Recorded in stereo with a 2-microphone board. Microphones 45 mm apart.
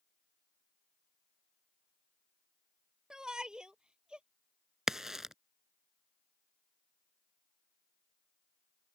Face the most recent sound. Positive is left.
turn(degrees=-10)  # may be behind; listen again after turning